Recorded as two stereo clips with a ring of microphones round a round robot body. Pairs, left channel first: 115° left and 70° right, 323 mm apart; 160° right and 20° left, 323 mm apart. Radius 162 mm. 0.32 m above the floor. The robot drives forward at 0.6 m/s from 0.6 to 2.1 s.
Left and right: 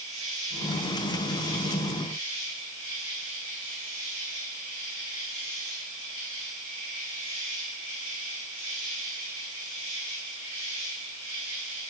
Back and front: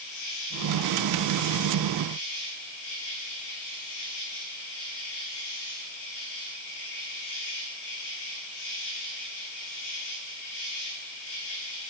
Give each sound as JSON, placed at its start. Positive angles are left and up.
{"t": 0.0, "sound": "an insect", "azimuth_deg": -145, "distance_m": 6.5}